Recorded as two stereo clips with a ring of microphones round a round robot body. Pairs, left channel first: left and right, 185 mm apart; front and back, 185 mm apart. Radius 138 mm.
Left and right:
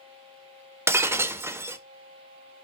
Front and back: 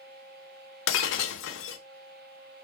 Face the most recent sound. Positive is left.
turn(degrees=-15)